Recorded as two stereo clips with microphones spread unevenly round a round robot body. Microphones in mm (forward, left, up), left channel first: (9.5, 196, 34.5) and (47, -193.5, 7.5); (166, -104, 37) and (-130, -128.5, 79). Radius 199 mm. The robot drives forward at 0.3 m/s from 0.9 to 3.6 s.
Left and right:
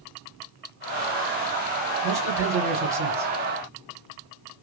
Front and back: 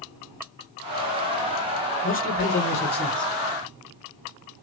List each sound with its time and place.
2.0 s a man speaking: 15° right, 1.7 m; by 3.3 s 20° right, 1.5 m